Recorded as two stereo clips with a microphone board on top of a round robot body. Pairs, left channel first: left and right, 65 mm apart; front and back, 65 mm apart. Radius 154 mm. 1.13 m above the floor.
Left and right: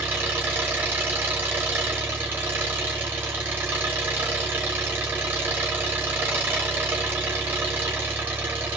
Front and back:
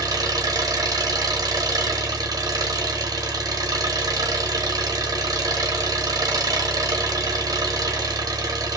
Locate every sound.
0.0 s an engine running: 155° right, 0.9 m